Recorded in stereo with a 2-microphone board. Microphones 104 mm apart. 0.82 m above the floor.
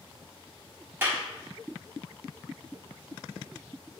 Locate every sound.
1.0 s a clap: 25° right (ahead or behind), 1.8 m